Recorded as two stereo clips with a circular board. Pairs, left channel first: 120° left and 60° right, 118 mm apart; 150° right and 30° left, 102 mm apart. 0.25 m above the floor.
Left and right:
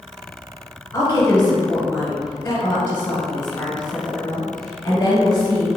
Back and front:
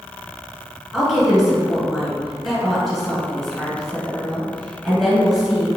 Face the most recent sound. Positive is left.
turn(degrees=120)